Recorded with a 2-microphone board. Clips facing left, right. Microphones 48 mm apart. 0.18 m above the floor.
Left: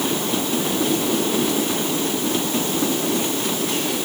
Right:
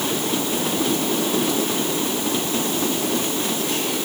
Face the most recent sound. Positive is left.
No sound to turn to.